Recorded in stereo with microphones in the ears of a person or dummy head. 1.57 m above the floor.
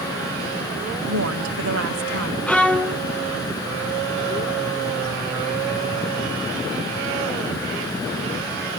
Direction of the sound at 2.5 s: 5° left (ahead or behind).